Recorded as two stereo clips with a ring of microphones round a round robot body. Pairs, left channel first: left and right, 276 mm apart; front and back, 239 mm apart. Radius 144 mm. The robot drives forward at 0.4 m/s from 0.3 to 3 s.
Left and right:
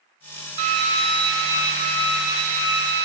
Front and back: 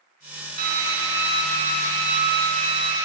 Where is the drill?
125° right, 2.5 m; by 3.0 s 145° right, 3 m.